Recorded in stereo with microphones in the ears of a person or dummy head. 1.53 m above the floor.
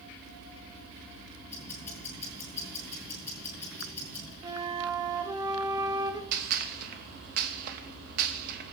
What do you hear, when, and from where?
1.5 s ticking: 10° left (ahead or behind), 3 m
4.4 s a flute: 20° right (ahead or behind), 0.8 m
6.3 s a gunshot: 50° right (ahead or behind), 1.1 m